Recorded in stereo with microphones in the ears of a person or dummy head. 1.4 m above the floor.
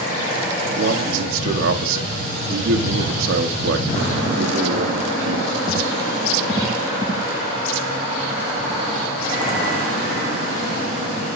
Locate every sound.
0.8 s a man speaking: 75° right (ahead or behind), 1.0 m